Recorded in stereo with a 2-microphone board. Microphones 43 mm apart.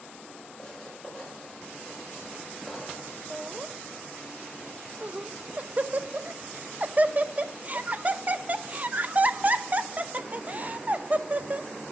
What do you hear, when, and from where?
0.6 s writing: 10° right (ahead or behind), 6 m
3.3 s laughter: 35° right (ahead or behind), 0.5 m